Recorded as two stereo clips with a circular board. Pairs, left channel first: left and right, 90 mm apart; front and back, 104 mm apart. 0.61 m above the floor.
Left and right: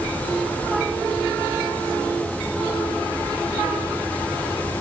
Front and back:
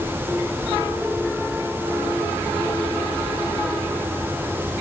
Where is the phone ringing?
No phone ringing in this recording.